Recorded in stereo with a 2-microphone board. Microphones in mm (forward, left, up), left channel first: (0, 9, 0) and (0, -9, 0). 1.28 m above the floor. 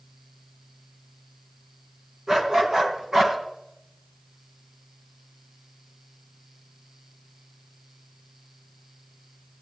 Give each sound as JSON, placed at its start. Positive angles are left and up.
{"t": 2.3, "sound": "a dog barking", "side_deg": -30, "distance_m": 3.5}